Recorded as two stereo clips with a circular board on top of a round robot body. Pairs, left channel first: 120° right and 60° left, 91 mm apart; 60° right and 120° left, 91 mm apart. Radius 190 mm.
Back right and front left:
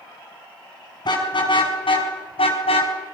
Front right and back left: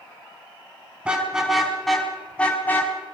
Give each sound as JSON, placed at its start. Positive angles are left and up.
{"t": 1.1, "sound": "a car horn", "azimuth_deg": -160, "distance_m": 5.0}